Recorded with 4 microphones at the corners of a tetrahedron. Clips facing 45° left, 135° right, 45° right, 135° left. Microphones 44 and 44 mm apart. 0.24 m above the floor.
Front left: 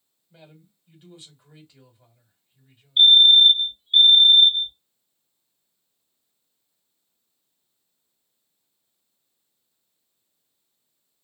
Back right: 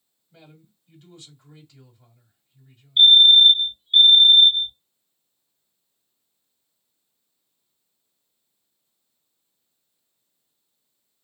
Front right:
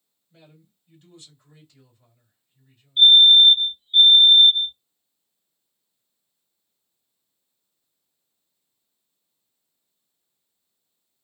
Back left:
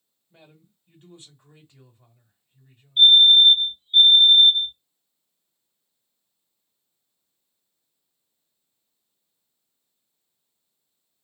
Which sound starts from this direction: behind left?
A fire alarm, at 3.0 s.